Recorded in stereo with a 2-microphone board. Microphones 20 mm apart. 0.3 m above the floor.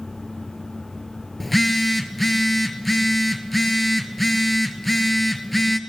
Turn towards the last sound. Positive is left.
turn(degrees=5)  # may be behind; listen again after turning